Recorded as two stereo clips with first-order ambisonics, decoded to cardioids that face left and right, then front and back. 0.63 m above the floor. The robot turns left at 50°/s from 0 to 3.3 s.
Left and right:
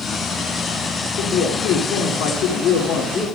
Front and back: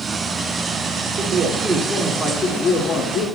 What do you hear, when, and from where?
1.2 s a man speaking: 125° left, 1.9 m; by 3.3 s 20° left, 1.9 m